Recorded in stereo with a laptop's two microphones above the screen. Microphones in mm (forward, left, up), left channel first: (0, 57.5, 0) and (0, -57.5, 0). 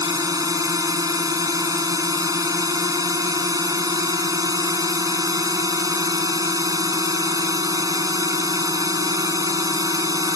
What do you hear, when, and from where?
0.0 s a drone: 30° right (ahead or behind)